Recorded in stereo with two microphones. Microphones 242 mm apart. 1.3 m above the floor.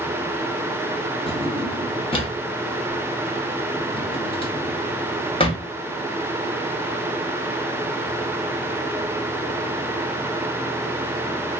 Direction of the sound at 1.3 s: 20° left (ahead or behind).